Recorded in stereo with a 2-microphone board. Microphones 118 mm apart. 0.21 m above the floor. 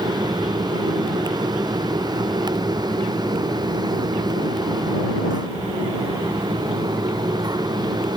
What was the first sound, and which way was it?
Only background noise.